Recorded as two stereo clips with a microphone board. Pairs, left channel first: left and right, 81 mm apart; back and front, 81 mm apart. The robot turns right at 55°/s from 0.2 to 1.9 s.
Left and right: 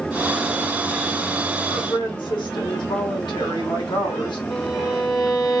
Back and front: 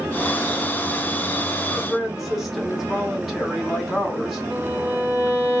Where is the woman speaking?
80° left, 1.4 m; by 4.4 s 90° left, 1.4 m.